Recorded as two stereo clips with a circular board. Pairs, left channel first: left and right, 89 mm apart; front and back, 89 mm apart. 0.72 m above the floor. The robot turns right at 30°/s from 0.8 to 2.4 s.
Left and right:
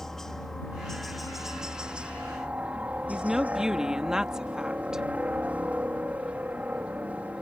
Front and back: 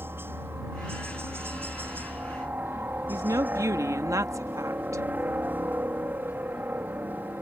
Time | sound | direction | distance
0.0 | a helicopter | 170° left | ?
3.1 | a woman speaking | 170° right | ?